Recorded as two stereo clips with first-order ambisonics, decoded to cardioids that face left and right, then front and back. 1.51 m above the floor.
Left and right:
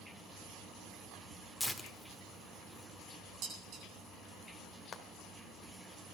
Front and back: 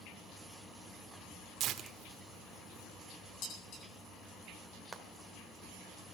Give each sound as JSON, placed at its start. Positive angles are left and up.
{"t": 1.6, "sound": "tearing paper", "azimuth_deg": 175, "distance_m": 1.3}
{"t": 3.4, "sound": "dishes clattering", "azimuth_deg": -45, "distance_m": 9.0}
{"t": 4.9, "sound": "frying", "azimuth_deg": 110, "distance_m": 1.2}